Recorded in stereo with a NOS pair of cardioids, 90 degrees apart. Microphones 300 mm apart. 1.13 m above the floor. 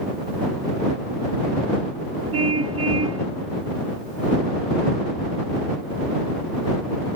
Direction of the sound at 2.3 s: 50° right.